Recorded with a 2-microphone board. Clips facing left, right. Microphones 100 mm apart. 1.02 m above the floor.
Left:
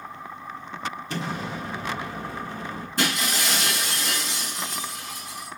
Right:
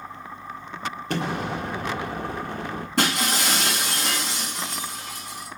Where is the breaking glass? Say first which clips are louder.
Right 3 dB; 75° right (ahead or behind), 4.5 m.